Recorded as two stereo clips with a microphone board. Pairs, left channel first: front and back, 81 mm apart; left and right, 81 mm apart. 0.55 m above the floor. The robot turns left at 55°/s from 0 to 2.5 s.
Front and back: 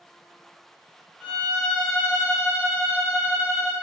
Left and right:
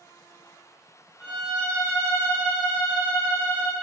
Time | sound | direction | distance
1.2 | a violin | 170° right | 1.0 m